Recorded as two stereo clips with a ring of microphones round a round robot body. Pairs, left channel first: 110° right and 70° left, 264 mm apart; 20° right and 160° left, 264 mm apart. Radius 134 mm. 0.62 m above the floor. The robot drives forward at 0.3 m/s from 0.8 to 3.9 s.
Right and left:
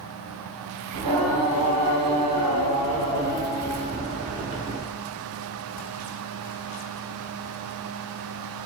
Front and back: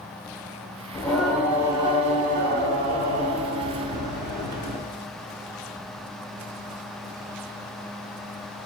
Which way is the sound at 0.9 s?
60° left.